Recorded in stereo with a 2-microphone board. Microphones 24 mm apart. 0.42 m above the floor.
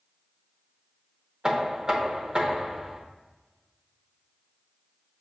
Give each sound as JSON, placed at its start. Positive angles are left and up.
{"t": 1.4, "sound": "knocking", "side_deg": -30, "distance_m": 0.6}